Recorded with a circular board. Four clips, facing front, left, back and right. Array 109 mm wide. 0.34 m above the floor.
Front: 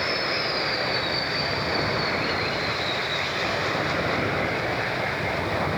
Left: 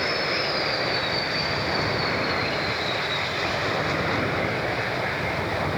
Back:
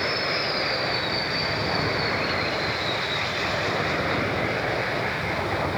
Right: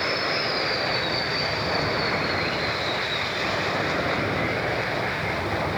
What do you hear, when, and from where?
Only background noise.